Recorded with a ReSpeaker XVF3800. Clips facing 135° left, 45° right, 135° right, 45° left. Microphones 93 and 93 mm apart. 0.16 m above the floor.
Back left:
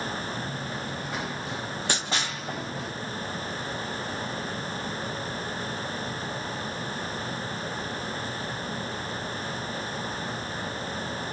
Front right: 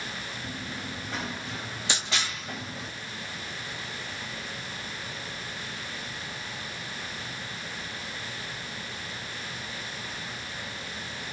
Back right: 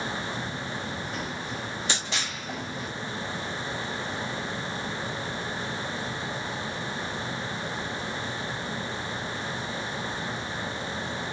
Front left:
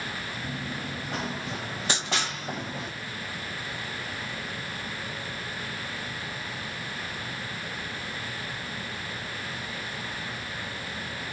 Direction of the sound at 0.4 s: 45° left.